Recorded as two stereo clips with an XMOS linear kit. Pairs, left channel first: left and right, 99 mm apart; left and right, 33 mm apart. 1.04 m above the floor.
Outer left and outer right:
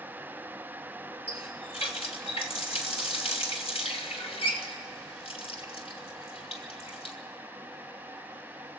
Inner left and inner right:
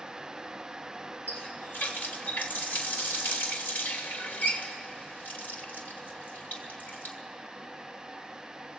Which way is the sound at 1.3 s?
80° left.